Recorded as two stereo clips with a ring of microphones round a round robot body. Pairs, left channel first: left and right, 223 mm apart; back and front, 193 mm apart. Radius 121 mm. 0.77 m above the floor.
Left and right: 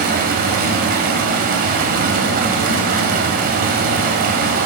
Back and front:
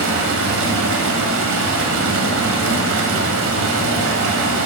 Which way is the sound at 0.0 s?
35° right.